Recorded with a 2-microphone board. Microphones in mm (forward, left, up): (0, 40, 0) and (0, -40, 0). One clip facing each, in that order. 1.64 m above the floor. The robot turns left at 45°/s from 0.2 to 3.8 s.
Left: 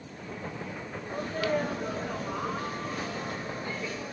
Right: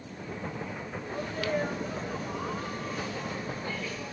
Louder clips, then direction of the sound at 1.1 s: Left 3 dB; 150° left.